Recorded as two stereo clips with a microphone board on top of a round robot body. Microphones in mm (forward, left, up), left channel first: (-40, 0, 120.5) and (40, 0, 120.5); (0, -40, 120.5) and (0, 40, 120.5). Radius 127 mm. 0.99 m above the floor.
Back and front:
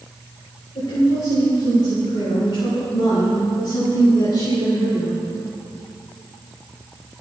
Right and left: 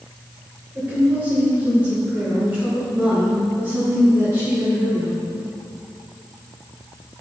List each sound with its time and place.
0.8 s a woman speaking: 155° left, 4 m